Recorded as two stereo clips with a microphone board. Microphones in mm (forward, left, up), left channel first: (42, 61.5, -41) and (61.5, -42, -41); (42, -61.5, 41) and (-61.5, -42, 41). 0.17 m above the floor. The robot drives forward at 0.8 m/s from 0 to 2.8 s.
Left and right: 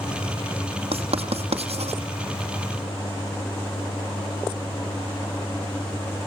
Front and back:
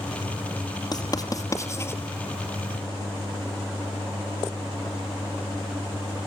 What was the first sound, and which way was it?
Writing, 60° right.